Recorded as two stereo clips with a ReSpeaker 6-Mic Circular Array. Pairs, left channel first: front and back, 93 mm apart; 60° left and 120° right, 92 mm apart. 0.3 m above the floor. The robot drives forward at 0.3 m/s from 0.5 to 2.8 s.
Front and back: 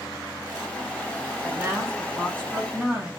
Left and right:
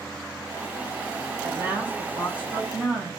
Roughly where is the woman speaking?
Behind right.